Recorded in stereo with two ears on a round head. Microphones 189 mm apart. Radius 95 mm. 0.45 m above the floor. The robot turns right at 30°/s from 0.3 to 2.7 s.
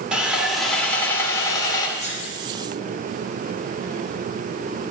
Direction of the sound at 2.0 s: 60° right (ahead or behind).